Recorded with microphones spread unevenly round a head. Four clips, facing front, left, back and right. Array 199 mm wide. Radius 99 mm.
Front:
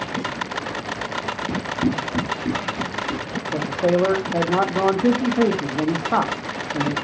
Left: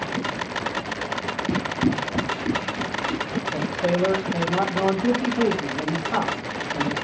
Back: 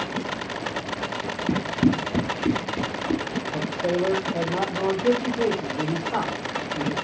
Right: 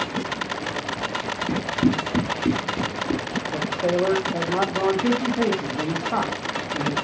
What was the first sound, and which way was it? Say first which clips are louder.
Running footsteps: right 2 dB, back 3 dB; 165° left.